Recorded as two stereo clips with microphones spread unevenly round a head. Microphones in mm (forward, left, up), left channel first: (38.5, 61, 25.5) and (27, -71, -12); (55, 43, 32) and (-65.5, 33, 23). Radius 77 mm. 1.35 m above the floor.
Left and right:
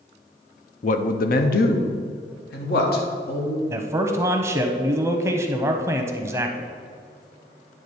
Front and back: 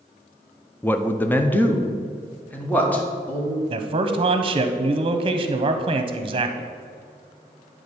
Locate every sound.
0.8 s a man speaking: 75° left, 0.5 m; by 3.6 s 80° left, 2 m
3.7 s a man speaking: 150° right, 0.7 m